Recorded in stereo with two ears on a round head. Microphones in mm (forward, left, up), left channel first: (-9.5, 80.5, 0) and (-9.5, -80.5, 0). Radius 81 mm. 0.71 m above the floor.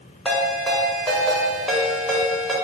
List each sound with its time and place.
0.2 s a ringtone: centre (ahead or behind), 1.8 m